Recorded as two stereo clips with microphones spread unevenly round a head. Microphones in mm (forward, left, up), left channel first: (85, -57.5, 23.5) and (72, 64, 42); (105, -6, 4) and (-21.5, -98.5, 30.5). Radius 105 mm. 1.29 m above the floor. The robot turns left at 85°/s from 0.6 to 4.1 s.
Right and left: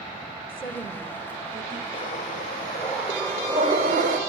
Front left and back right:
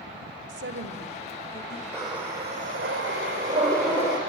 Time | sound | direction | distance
0.5 | a woman speaking | 140° right | 2.5 m
1.9 | breathing | 85° right | 5.5 m